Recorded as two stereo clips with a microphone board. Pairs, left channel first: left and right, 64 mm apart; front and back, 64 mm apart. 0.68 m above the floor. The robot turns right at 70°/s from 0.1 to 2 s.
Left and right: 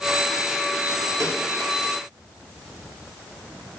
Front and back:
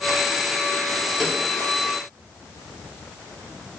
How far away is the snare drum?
About 1.9 m.